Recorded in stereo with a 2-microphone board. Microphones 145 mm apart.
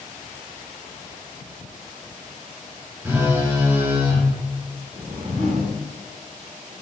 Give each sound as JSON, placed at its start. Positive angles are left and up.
{"t": 3.0, "sound": "a phone buzzing", "side_deg": -15, "distance_m": 0.9}
{"t": 4.9, "sound": "a whoosh", "side_deg": -70, "distance_m": 1.8}